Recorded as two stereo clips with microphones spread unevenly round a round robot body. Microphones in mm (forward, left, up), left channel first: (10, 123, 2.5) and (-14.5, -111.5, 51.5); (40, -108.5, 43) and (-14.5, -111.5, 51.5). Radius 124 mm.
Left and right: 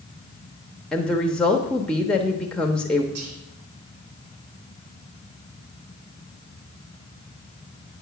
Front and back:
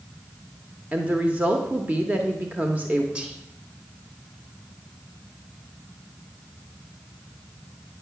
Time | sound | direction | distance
0.9 | a woman speaking | 135° left | 0.9 m
3.1 | whispering | 105° right | 1.9 m